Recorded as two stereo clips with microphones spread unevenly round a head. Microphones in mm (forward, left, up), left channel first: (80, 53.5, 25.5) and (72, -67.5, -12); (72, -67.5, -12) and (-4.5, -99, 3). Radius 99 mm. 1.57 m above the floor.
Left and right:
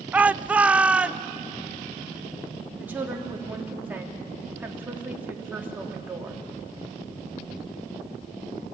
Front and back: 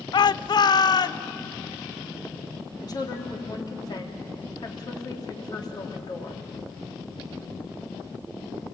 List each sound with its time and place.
0.1 s a shout: 15° right, 0.5 m
2.8 s a woman speaking: 15° right, 3.5 m